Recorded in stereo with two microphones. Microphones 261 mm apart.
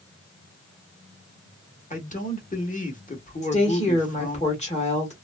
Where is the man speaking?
30° left (ahead or behind), 1.0 m.